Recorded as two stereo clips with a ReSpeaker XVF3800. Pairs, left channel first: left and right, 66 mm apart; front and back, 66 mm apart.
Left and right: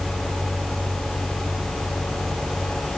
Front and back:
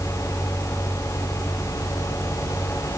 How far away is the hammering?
I don't hear hammering.